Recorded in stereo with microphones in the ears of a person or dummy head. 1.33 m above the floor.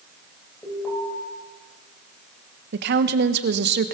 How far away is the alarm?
About 9.5 m.